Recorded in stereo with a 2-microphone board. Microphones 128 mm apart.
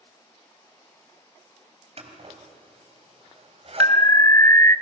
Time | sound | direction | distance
2.0 | scissors | 50° right (ahead or behind) | 3 m
3.8 | an alarm | 25° left (ahead or behind) | 0.6 m